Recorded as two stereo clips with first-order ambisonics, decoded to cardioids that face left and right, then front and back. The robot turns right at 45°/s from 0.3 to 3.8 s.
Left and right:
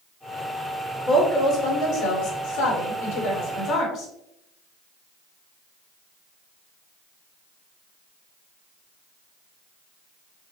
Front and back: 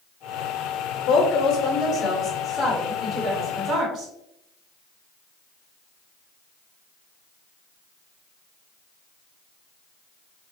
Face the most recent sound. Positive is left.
turn(degrees=120)